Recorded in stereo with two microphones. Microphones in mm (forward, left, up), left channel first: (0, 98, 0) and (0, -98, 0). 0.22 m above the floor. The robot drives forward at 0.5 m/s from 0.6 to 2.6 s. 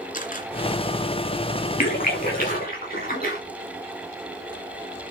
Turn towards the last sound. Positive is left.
turn(degrees=50)  # may be behind; listen again after turning